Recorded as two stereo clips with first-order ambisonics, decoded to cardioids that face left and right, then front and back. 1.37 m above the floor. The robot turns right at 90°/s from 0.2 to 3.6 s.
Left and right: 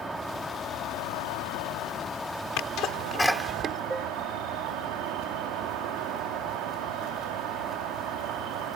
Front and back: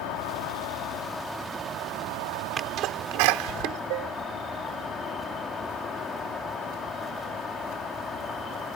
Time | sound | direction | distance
0.0 | an insect | 15° right | ?
2.6 | a sneeze | 115° left | ?
3.9 | dishes clattering | 170° right | ?